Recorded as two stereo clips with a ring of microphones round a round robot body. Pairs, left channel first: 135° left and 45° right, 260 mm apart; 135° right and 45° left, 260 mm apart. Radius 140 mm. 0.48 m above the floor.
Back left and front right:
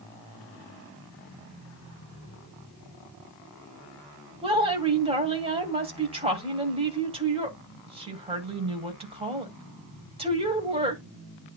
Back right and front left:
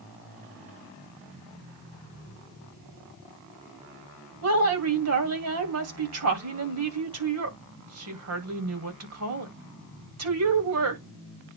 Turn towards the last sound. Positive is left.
turn(degrees=25)